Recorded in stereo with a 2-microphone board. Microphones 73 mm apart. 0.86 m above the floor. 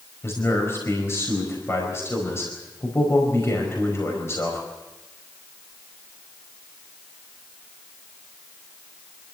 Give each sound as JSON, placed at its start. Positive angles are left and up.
{"t": 0.2, "sound": "a man speaking", "side_deg": 35, "distance_m": 5.0}